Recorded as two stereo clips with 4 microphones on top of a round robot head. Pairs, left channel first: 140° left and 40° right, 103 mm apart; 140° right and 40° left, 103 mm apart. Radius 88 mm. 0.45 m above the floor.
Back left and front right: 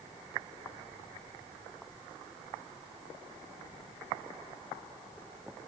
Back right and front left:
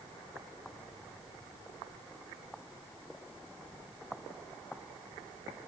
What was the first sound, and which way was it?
Only background noise.